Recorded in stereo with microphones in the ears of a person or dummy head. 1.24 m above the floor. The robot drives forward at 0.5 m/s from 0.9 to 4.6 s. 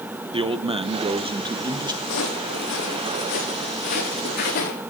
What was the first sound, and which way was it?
A man speaking, 20° right (ahead or behind).